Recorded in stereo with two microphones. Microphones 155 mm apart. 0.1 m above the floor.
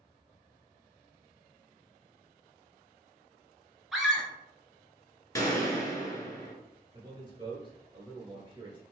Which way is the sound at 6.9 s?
30° right (ahead or behind).